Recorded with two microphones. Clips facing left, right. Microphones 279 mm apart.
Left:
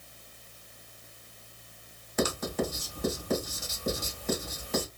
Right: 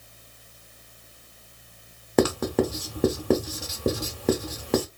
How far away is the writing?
About 0.6 m.